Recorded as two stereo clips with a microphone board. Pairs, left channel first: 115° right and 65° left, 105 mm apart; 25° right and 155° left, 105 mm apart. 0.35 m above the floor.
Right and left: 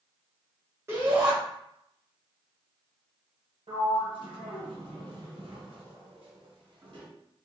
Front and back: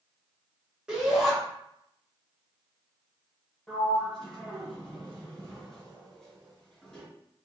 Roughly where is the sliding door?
Ahead left.